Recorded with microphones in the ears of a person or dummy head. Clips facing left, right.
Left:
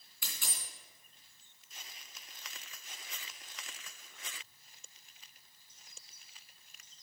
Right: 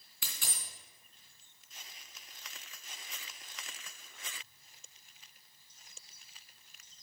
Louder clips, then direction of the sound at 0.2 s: Even; 50° right (ahead or behind).